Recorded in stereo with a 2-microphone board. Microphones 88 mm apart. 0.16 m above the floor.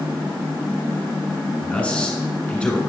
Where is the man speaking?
15° left (ahead or behind), 1.6 m.